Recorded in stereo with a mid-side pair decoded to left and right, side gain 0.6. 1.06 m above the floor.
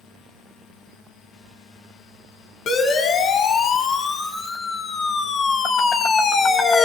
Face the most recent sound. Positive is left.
turn(degrees=30)